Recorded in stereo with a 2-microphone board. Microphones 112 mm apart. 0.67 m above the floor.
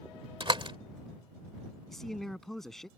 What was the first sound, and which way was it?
A door slam, 50° right (ahead or behind).